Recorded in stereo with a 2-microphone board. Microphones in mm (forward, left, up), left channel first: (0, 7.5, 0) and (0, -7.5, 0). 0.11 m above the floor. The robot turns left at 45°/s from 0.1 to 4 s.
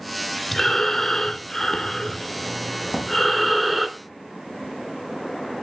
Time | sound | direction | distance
0.5 | breathing | 15° left (ahead or behind) | 0.7 m
2.9 | a drawer | 60° right (ahead or behind) | 3 m